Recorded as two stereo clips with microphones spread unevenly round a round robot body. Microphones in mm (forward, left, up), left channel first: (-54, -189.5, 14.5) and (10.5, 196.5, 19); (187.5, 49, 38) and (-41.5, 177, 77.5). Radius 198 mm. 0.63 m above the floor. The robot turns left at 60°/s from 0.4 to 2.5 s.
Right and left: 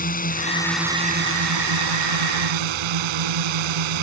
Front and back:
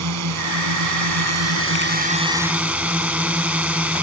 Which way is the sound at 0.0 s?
170° right.